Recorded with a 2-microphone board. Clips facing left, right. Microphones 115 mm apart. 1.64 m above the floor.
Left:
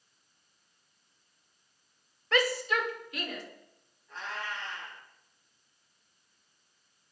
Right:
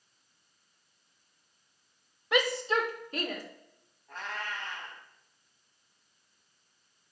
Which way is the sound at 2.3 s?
15° right (ahead or behind).